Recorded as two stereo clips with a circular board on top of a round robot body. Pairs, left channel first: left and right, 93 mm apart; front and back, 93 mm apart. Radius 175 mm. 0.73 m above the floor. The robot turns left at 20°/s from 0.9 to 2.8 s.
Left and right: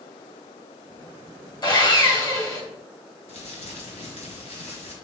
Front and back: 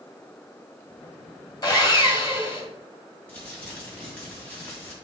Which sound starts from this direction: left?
Crumpling, at 3.3 s.